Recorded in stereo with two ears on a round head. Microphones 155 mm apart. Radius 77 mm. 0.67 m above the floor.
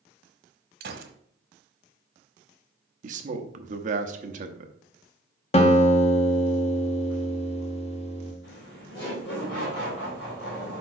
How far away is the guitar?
About 1.0 m.